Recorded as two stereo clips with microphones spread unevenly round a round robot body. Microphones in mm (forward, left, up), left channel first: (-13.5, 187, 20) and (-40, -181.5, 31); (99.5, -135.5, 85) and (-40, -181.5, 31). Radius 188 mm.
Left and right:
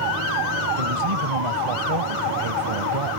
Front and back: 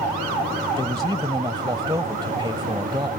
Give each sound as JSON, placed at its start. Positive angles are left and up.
{"t": 0.8, "sound": "a man speaking", "azimuth_deg": -100}